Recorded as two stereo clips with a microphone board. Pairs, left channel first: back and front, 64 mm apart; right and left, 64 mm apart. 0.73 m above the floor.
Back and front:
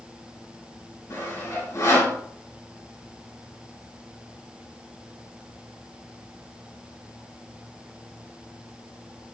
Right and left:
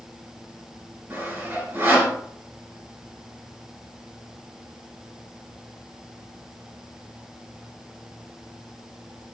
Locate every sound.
1.1 s sawing: 145° left, 2.5 m